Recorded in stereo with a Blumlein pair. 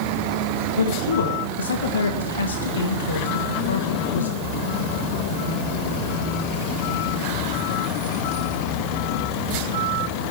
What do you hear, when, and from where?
0.8 s a man speaking: 70° left, 1.5 m